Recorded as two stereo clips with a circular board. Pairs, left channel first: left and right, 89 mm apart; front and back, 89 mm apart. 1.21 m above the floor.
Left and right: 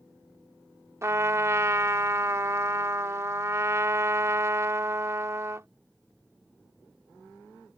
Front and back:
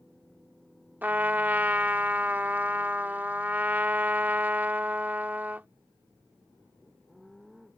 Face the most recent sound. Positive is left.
turn(degrees=-120)